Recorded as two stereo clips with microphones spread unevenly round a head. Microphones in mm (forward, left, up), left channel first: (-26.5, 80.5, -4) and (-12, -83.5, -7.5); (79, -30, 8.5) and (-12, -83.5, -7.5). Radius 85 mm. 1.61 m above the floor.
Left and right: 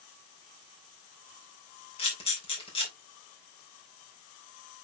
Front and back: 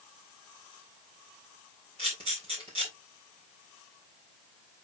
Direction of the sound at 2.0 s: 150° left.